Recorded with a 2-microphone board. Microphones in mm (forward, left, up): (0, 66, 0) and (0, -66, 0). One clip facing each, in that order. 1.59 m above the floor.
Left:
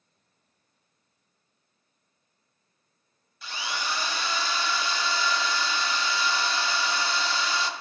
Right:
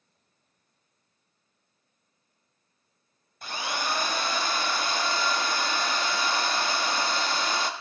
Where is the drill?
50° right (ahead or behind), 0.6 m.